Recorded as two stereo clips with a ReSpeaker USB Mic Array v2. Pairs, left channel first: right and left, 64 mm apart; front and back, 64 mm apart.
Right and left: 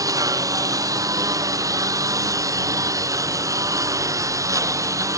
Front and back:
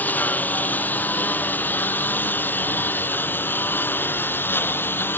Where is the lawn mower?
60° left; by 5.2 s 55° left.